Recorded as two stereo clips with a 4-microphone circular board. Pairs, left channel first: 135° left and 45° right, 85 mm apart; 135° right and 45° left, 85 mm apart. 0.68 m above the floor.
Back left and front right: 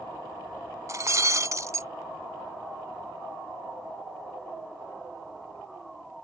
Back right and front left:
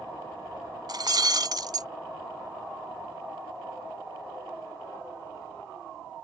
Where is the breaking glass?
5° left.